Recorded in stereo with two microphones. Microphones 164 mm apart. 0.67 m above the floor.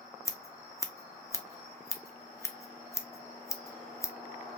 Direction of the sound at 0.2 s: 20° left (ahead or behind).